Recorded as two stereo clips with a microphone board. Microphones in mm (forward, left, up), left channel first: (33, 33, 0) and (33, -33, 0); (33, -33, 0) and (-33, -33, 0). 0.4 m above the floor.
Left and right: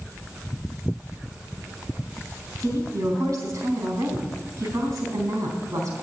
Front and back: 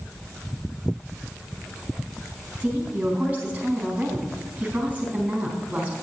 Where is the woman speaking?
115° right, 4 m.